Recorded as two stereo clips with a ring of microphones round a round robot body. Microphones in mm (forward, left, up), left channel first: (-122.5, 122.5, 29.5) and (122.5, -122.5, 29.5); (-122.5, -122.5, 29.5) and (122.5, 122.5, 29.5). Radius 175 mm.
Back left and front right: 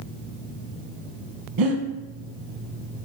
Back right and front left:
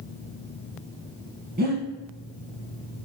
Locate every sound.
1.6 s breathing: 20° right, 0.7 m